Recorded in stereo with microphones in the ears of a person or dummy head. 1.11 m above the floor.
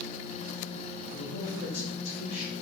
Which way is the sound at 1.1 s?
55° left (ahead or behind).